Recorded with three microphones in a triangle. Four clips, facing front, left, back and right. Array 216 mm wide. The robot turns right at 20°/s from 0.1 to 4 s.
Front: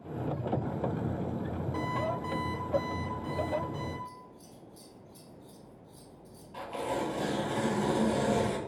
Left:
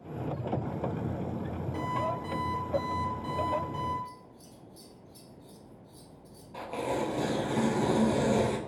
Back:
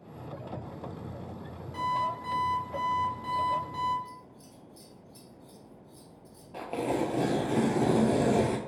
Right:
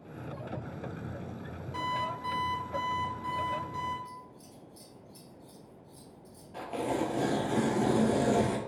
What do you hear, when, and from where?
1.7 s an alarm clock: 120° left, 1.5 m; by 4.0 s 165° left, 1.5 m
4.0 s scissors: 60° left, 1.1 m
6.5 s tearing paper: 170° left, 0.6 m